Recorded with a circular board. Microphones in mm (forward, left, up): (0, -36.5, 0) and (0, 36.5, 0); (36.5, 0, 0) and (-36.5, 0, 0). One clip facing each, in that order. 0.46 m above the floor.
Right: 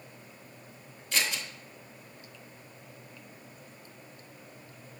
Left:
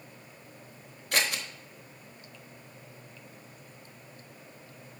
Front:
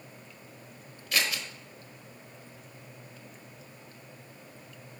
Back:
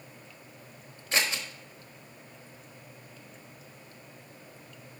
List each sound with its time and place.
1.1 s scissors: 120° left, 1.1 m